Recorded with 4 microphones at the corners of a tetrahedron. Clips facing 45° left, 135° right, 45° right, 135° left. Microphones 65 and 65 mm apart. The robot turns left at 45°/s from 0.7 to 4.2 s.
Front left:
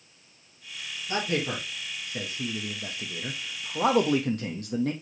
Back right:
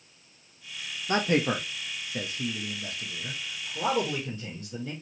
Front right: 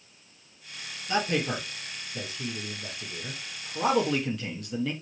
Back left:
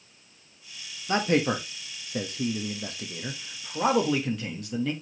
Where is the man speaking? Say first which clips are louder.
Back right 4 dB, back left 4 dB; 175° right, 1.5 m; by 4.9 s 45° left, 1.5 m.